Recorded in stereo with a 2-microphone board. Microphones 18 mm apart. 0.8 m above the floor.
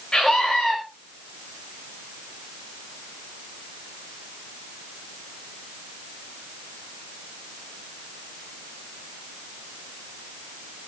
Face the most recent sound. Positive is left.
turn(degrees=55)  # may be behind; listen again after turning